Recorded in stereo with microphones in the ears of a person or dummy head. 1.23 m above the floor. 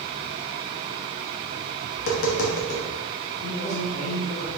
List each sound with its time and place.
1.9 s tapping: 50° left (ahead or behind), 0.7 m
3.4 s a man speaking: 60° left (ahead or behind), 1.7 m